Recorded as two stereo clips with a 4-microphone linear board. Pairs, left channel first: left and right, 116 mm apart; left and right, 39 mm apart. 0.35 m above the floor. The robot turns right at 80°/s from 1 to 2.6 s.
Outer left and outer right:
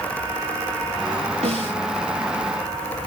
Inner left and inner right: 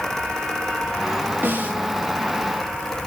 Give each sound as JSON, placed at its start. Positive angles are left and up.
{"t": 1.4, "sound": "a snare drum", "side_deg": -75, "distance_m": 9.0}